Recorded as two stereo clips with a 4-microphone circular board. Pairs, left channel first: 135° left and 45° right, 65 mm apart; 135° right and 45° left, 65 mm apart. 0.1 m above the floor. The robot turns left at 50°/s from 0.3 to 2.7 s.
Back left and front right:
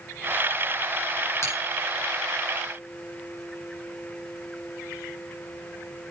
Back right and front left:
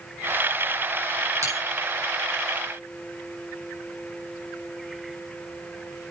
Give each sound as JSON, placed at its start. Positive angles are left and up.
{"t": 1.4, "sound": "a bell", "azimuth_deg": 85, "distance_m": 9.0}